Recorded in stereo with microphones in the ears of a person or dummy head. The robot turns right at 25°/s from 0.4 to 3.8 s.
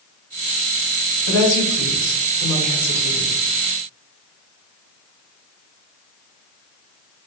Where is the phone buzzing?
No phone buzzing in this recording.